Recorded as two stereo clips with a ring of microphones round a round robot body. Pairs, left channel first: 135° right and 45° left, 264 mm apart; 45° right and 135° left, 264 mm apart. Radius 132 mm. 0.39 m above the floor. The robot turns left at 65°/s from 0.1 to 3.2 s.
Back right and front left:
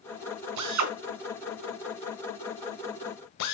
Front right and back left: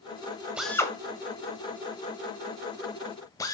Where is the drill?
50° left, 1.5 m; by 3.5 s 120° right, 1.5 m.